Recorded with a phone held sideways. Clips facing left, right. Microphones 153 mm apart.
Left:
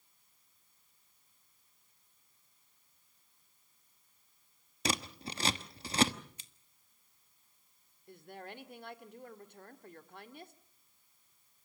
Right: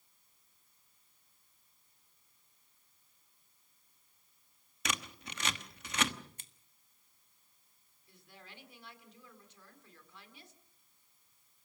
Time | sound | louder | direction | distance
4.8 | scissors | left 5 dB | 35° left (ahead or behind) | 1.0 m
6.4 | scissors | right 1 dB | 50° right (ahead or behind) | 1.4 m
8.1 | a woman speaking | left 10 dB | 55° left (ahead or behind) | 1.8 m